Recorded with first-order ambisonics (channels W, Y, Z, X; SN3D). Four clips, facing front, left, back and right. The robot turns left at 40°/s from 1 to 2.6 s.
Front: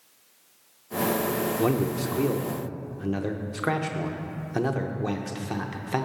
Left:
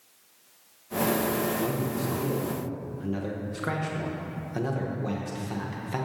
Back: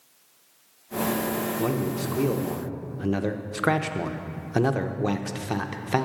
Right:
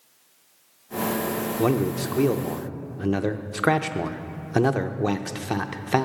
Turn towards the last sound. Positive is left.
turn(degrees=-110)